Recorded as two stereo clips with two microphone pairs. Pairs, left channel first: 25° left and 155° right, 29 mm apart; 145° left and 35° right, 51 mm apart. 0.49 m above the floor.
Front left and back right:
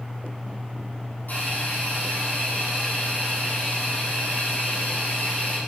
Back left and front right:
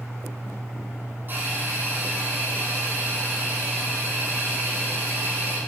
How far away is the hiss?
About 5 m.